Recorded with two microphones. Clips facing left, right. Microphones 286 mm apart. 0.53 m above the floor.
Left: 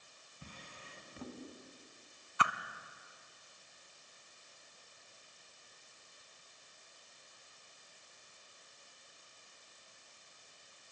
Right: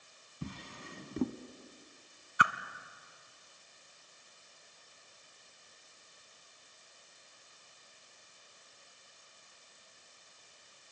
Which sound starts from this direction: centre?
A whoosh, at 2.4 s.